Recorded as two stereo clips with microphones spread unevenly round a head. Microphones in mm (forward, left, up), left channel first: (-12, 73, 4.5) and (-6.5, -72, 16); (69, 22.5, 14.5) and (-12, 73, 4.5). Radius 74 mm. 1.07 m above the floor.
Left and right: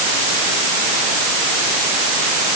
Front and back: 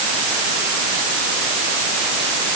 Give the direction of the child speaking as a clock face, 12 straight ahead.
I don't hear a child speaking.